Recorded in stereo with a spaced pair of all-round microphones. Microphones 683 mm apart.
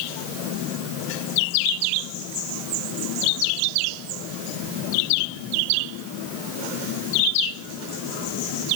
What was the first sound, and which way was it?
Only background noise.